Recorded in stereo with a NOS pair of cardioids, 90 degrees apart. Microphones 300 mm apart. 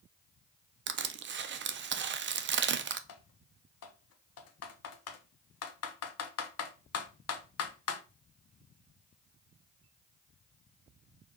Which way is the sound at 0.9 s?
40° right.